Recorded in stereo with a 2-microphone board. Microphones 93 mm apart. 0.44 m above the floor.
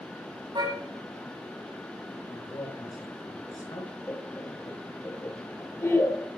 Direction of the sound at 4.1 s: 25° left (ahead or behind).